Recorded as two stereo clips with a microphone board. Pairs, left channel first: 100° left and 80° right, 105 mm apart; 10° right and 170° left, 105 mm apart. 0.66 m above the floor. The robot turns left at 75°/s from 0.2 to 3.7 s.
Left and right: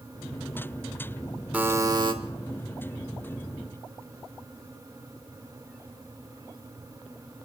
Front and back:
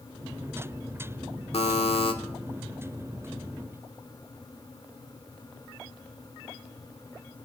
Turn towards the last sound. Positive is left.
turn(degrees=-165)